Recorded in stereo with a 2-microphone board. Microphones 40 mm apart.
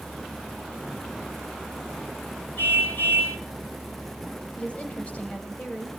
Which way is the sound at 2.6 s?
50° left (ahead or behind).